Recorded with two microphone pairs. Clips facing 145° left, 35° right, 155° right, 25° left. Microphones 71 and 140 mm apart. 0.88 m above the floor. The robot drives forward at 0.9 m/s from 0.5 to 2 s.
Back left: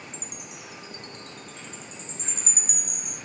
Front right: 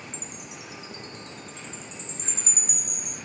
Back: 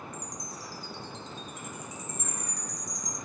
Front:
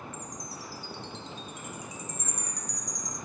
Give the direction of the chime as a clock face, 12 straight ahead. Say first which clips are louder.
Front right 1 dB, even; 7 o'clock.